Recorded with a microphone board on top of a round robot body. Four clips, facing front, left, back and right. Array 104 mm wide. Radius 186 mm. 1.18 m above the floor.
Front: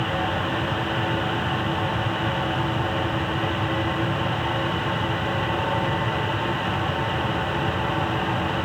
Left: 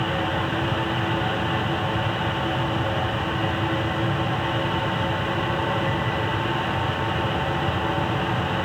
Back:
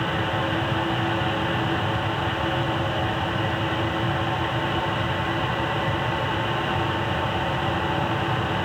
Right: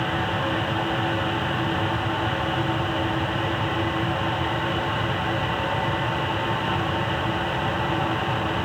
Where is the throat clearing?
I don't hear throat clearing.